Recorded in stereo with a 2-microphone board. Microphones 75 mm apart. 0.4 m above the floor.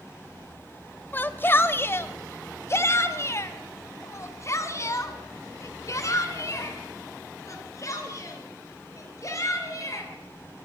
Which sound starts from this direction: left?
A shout, at 1.1 s.